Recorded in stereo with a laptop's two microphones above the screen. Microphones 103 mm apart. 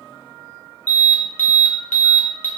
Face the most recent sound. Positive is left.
turn(degrees=15)  # may be behind; listen again after turning